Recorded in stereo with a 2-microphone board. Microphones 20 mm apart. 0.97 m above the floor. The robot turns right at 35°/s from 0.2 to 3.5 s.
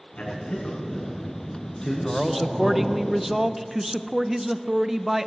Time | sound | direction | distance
0.2 | a man speaking | 90° left | 8 m
2.0 | a man speaking | 5° left (ahead or behind) | 0.7 m